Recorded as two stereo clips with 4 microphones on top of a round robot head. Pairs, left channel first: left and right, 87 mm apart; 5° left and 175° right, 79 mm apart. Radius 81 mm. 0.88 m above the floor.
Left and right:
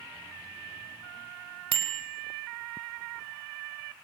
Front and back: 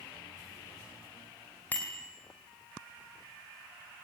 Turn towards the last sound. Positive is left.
turn(degrees=-70)